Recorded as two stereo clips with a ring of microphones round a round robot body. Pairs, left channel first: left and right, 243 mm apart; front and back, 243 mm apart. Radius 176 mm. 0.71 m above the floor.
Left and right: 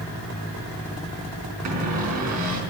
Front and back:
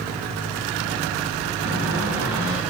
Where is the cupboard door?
100° right, 4.5 m.